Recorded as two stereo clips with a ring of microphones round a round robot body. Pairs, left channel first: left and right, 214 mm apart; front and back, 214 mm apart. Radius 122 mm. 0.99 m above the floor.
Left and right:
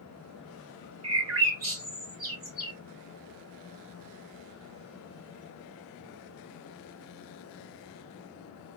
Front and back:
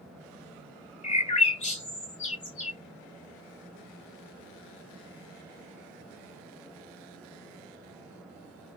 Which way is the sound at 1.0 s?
60° right.